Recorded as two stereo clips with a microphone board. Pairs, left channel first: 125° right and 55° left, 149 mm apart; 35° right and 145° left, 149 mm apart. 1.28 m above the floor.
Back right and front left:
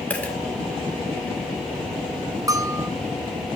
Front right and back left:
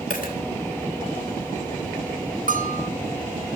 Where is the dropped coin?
45° right, 1.8 m.